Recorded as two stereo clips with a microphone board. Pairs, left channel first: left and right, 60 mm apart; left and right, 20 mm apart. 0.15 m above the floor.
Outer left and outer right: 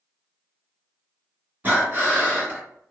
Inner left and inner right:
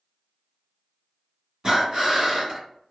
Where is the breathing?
30° right (ahead or behind), 1.8 m.